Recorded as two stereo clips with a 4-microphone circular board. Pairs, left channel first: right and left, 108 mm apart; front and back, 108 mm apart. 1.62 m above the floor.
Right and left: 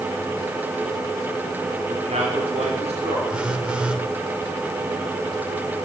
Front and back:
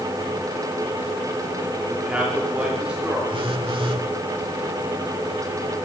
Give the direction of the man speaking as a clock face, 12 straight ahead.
9 o'clock.